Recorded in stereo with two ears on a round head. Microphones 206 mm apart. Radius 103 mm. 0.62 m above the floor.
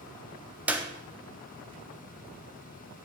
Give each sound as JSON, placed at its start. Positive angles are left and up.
{"t": 0.7, "sound": "a clap", "side_deg": -5, "distance_m": 0.6}